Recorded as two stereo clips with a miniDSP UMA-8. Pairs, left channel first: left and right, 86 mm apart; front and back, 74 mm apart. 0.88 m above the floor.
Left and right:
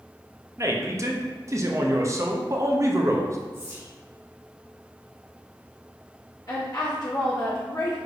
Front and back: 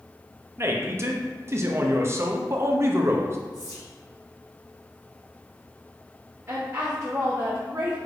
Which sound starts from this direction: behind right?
A man speaking, at 0.6 s.